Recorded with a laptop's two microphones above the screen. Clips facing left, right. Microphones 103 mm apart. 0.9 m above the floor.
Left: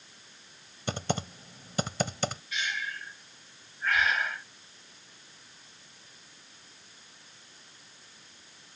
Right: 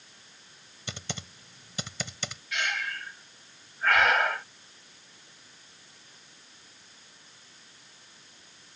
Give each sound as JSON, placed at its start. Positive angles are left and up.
{"t": 0.9, "sound": "typing on a keyboard", "side_deg": 45}
{"t": 2.5, "sound": "breathing", "side_deg": -70}